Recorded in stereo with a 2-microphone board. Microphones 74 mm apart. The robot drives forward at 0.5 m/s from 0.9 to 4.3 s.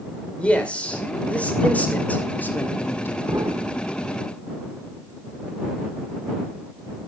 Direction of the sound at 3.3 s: 60° right (ahead or behind).